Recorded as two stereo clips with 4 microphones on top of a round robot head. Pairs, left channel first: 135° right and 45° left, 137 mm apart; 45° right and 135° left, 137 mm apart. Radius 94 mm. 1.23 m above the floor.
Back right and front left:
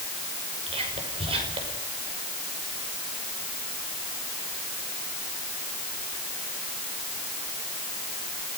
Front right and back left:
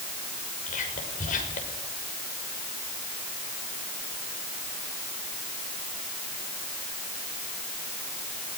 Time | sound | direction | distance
0.7 | whispering | 10° right | 6 m